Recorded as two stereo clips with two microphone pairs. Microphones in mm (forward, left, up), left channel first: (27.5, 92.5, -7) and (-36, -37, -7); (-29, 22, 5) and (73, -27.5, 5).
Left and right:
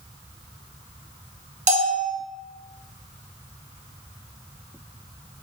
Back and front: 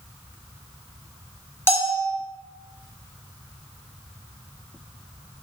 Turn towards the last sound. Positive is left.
turn(degrees=-140)